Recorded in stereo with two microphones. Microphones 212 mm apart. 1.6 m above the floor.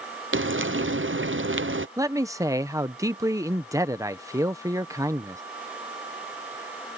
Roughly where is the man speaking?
Centre.